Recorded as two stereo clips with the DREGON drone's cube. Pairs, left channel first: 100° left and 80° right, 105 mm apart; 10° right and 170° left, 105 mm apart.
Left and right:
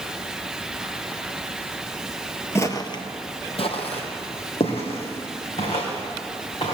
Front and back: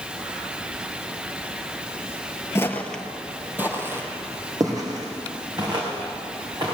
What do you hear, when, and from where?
2.5 s footsteps: 45° left, 1.1 m; by 6.7 s 125° left, 5 m